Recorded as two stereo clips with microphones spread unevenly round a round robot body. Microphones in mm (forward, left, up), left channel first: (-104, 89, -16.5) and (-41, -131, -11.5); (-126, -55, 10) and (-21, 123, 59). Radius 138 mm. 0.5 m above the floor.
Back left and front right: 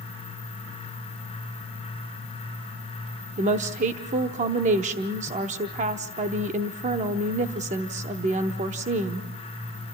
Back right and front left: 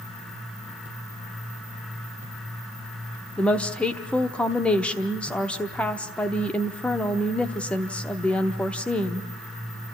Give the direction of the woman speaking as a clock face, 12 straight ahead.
2 o'clock.